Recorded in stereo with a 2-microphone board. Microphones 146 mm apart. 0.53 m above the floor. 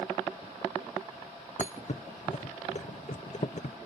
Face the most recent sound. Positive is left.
turn(degrees=55)  # may be behind; listen again after turning